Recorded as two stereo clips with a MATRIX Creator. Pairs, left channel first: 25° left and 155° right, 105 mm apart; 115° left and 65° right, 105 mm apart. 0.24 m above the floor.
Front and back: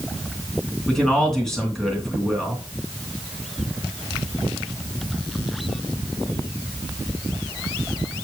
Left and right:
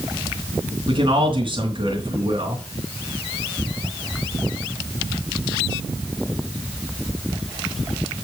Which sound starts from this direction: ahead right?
A man speaking, at 0.9 s.